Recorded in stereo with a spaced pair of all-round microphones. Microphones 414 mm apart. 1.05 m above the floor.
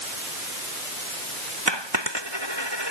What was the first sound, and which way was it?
A dropped coin, 85° right.